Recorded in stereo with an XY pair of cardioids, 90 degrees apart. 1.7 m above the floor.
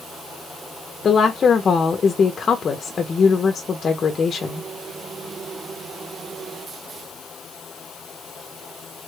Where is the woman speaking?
45° left, 0.6 m.